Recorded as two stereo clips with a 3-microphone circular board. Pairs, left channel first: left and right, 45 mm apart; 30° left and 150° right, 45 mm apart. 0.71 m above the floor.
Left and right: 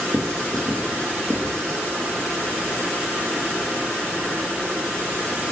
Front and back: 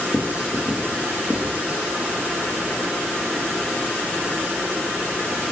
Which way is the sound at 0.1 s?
95° right.